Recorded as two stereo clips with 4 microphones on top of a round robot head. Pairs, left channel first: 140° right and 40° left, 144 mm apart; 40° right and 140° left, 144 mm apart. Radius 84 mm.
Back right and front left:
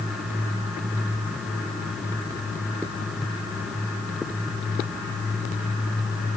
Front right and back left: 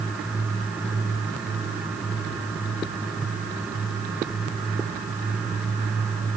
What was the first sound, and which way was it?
Only background noise.